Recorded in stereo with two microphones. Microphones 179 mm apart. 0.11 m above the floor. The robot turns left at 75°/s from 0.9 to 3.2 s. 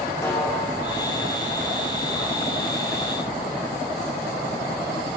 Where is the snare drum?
15° left (ahead or behind), 5 m; by 0.9 s 10° left (ahead or behind), 5 m.